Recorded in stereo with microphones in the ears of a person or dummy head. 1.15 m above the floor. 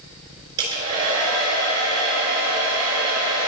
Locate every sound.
0.6 s a hair dryer: 65° right (ahead or behind), 4 m